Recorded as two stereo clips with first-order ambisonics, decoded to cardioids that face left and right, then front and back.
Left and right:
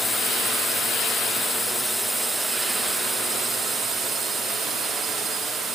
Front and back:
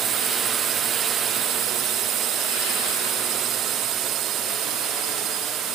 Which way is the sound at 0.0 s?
165° left.